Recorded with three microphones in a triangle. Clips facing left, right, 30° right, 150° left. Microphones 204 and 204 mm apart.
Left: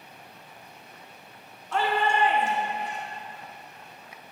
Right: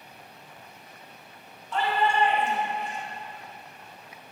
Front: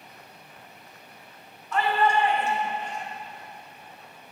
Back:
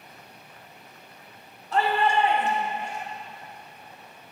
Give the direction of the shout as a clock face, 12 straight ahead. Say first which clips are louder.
Even, even; 9 o'clock.